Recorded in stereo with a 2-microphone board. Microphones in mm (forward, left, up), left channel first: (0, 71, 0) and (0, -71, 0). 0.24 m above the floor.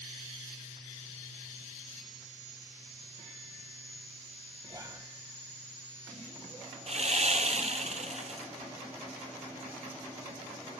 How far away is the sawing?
About 1.5 m.